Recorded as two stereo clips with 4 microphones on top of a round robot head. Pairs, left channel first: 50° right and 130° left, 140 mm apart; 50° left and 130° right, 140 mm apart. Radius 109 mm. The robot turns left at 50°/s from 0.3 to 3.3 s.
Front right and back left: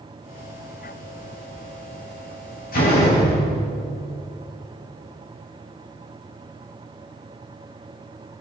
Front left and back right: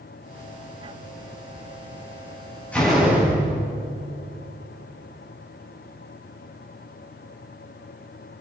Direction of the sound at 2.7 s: 30° right.